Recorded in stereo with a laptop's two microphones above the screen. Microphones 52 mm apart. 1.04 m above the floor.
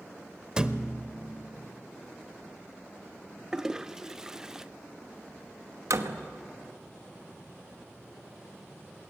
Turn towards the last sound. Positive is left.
turn(degrees=-85)